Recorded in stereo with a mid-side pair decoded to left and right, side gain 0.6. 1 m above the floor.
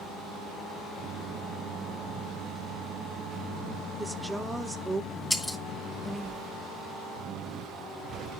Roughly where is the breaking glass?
Ahead.